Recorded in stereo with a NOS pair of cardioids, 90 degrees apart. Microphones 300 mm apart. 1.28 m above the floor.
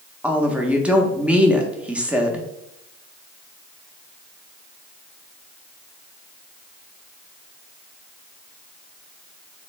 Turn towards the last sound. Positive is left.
turn(degrees=-5)